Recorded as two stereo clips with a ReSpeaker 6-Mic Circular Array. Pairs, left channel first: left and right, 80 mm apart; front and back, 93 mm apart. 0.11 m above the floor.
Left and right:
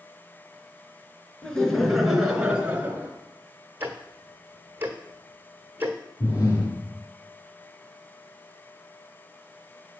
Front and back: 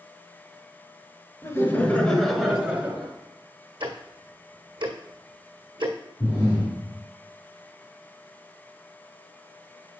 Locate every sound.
1.4 s laughter: 20° left, 1.4 m; by 3.1 s 135° right, 1.4 m
3.8 s ticking: 155° right, 1.3 m
6.2 s breathing: 55° left, 4 m